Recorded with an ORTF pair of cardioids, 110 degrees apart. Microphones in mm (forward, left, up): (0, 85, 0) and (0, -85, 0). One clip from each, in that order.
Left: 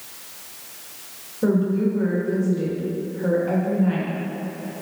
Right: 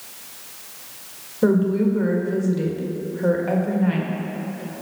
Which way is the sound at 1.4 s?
25° right.